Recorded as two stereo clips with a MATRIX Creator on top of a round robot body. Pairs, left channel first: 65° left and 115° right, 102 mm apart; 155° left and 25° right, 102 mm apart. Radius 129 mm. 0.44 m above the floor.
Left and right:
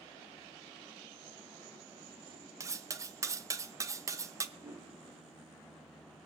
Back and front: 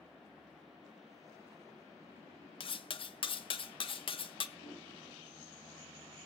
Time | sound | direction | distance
2.6 | cutlery clinking | 170° right | 0.8 m
4.6 | a whoosh | 170° right | 7 m